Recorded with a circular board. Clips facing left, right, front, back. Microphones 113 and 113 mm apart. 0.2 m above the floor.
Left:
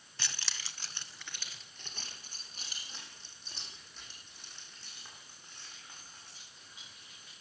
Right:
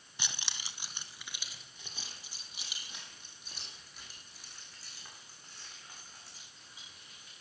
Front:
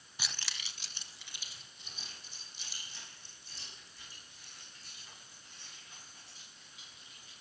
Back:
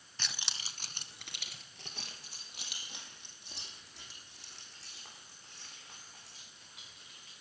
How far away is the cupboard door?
I don't hear a cupboard door.